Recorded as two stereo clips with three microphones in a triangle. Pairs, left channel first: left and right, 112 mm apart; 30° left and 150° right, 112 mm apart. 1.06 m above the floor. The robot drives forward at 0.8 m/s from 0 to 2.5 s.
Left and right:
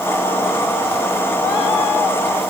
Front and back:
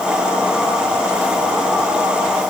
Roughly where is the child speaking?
I don't hear a child speaking.